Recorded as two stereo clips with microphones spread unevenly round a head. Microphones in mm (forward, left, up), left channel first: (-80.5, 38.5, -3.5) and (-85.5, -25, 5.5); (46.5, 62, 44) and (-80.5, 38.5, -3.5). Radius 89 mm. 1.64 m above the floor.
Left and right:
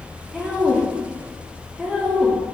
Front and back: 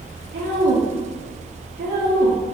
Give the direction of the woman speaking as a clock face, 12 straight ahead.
6 o'clock.